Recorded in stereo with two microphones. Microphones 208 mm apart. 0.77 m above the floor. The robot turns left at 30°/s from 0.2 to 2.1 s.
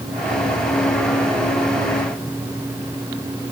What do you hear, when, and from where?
Only background noise.